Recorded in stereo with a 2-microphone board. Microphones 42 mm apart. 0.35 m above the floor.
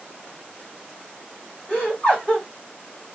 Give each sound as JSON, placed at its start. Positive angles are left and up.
{"t": 1.7, "sound": "laughter", "side_deg": 30, "distance_m": 1.8}